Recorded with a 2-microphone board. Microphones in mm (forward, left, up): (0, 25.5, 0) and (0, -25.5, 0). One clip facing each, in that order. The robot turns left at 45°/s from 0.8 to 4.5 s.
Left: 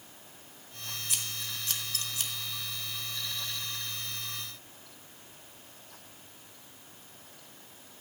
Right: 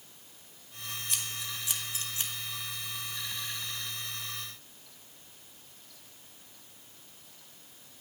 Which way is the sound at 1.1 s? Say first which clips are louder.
Even; 5° left (ahead or behind).